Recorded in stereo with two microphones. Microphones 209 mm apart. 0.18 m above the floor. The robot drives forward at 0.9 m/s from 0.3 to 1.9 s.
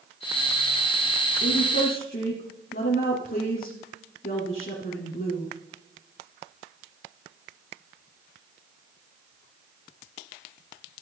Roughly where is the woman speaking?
Left.